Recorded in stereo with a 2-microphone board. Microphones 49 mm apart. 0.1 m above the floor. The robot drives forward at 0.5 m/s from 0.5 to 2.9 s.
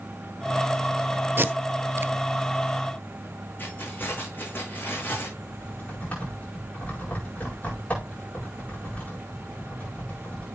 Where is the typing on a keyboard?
35° left (ahead or behind), 9 m.